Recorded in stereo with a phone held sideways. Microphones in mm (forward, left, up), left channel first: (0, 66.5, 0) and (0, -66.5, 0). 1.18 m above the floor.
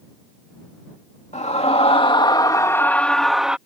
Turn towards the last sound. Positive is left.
turn(degrees=-5)  # may be behind; listen again after turning